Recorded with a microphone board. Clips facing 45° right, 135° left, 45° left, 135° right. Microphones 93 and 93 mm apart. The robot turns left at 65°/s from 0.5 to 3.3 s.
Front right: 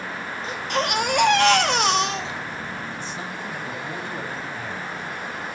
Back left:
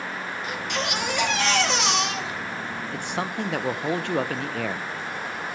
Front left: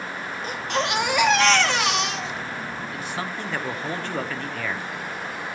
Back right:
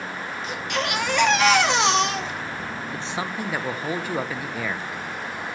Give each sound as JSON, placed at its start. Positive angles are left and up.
{"t": 0.4, "sound": "a baby crying", "azimuth_deg": 10, "distance_m": 1.5}
{"t": 2.9, "sound": "a man speaking", "azimuth_deg": 170, "distance_m": 0.9}